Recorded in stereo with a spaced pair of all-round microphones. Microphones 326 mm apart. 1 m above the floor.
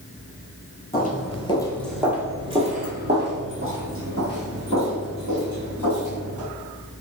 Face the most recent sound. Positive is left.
turn(degrees=-65)  # may be behind; listen again after turning